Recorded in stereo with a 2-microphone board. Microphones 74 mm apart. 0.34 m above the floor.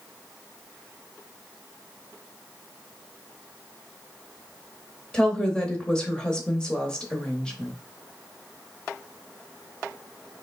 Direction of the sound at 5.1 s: 10° left (ahead or behind).